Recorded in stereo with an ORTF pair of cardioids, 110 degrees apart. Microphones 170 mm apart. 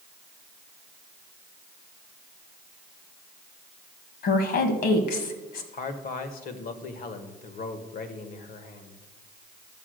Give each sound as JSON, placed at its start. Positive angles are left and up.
{"t": 4.2, "sound": "a woman speaking", "azimuth_deg": 65, "distance_m": 2.0}
{"t": 5.7, "sound": "a man speaking", "azimuth_deg": 60, "distance_m": 1.6}